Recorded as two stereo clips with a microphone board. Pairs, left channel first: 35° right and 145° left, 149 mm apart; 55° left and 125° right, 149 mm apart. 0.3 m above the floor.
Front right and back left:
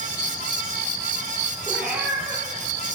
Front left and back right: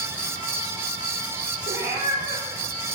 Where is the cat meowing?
130° right, 3 m.